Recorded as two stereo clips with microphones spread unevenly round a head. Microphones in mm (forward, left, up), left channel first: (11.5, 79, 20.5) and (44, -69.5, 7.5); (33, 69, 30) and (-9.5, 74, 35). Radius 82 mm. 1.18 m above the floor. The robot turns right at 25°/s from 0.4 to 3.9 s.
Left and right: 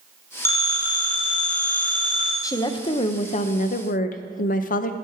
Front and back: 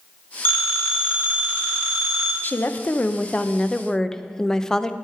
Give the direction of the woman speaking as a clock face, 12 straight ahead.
11 o'clock.